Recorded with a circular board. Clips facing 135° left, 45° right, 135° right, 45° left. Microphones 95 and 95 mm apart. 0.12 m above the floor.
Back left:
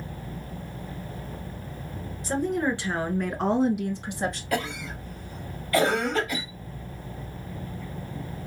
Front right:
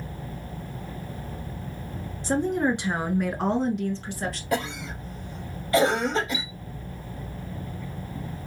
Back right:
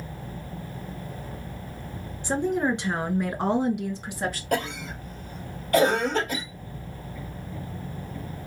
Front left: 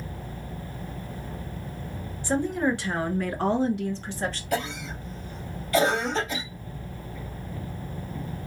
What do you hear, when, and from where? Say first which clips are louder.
2.2 s a woman speaking: front right 2 dB, even; 80° right, 1.4 m; by 4.4 s 160° left, 1.3 m
4.5 s a cough: front right 1 dB, back right 2 dB; 110° right, 2.5 m
6.3 s a chime: even, back right 1 dB; 35° left, 0.7 m